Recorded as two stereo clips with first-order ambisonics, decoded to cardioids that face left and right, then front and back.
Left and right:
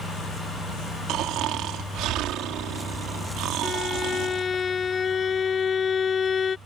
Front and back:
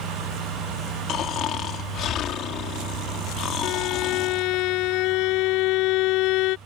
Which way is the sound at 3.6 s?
25° left.